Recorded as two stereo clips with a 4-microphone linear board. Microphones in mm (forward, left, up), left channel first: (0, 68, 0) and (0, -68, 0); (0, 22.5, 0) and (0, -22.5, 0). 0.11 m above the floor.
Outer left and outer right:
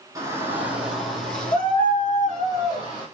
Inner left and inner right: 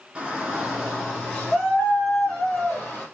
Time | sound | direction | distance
0.1 | a shout | 25° right (ahead or behind) | 1.5 m